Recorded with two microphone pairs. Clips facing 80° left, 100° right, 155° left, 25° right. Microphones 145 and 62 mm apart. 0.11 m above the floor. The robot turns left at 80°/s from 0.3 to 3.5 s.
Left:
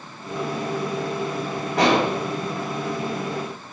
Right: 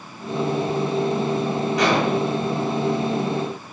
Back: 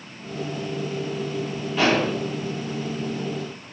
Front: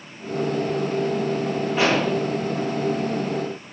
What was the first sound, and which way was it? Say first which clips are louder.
An explosion: left 2 dB, back 1 dB; 55° left.